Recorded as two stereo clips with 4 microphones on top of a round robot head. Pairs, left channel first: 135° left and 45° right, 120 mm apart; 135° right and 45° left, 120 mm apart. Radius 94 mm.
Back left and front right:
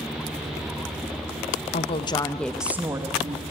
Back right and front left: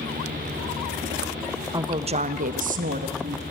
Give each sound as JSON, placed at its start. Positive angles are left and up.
{"t": 1.7, "sound": "a woman speaking", "azimuth_deg": 105, "distance_m": 1.1}